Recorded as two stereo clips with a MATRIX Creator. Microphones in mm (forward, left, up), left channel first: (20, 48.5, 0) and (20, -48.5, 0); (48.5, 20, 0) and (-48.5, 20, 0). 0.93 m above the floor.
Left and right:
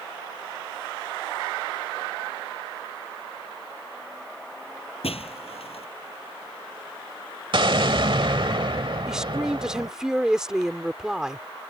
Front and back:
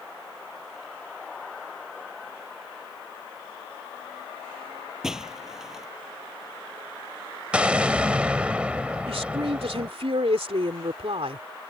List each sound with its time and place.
5.0 s breaking glass: 95° left
7.5 s an explosion: 105° right
9.1 s a woman speaking: 175° right